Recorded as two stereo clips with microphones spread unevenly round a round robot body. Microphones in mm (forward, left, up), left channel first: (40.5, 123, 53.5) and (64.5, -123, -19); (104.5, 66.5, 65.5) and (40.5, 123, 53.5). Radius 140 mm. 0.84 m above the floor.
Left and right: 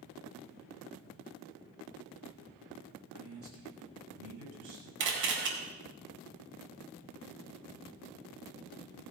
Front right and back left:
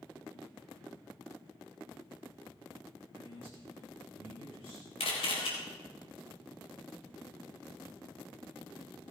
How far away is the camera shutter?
About 4 m.